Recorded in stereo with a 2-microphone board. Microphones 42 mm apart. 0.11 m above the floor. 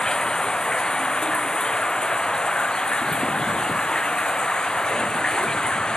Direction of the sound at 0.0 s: 20° left (ahead or behind).